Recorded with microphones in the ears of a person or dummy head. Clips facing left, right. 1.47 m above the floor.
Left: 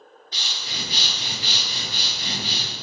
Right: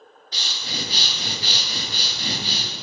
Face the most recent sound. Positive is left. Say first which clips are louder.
# right 3 dB
turn(degrees=-35)  # may be behind; listen again after turning